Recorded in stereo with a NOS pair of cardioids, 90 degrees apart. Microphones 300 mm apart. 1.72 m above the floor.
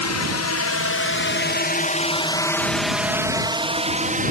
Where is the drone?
65° left; by 4.3 s 30° right.